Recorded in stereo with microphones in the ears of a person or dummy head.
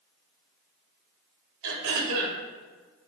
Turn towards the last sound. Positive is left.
turn(degrees=-70)  # may be behind; listen again after turning